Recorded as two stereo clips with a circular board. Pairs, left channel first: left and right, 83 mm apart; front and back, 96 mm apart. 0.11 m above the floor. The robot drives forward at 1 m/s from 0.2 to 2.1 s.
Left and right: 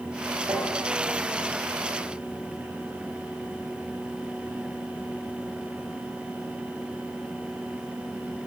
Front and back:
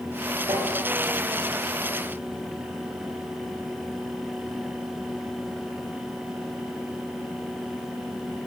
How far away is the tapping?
About 7.5 m.